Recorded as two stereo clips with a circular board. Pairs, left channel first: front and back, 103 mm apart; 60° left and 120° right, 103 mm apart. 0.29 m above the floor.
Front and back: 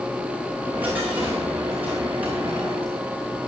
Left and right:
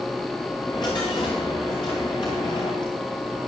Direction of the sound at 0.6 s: 105° left.